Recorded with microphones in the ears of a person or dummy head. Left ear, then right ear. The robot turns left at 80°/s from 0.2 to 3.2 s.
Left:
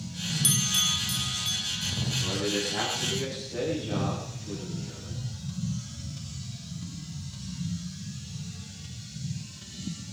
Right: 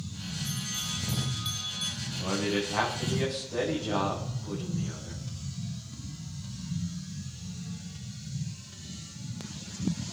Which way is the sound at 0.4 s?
75° left (ahead or behind).